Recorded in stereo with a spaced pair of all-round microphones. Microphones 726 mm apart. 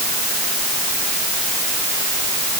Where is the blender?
I don't hear a blender.